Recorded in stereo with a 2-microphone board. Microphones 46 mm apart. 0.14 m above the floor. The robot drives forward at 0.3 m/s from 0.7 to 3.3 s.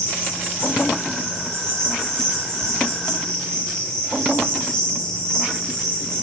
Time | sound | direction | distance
0.0 | an insect | 10° left (ahead or behind) | 3 m